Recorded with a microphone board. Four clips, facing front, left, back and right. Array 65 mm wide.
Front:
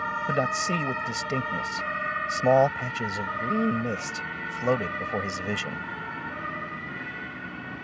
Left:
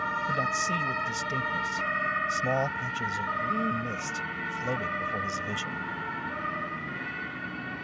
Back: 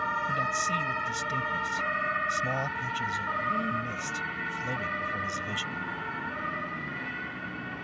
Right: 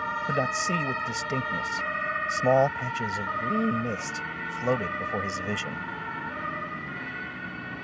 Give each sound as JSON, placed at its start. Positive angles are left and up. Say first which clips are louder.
{"t": 0.3, "sound": "a man speaking", "louder": "right 3 dB, front 3 dB", "azimuth_deg": -35}